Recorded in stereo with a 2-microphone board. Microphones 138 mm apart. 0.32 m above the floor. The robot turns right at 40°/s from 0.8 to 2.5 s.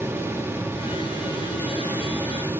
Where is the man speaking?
I don't hear a man speaking.